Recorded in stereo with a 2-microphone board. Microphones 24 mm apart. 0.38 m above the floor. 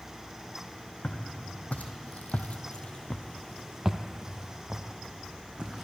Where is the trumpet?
No trumpet in this recording.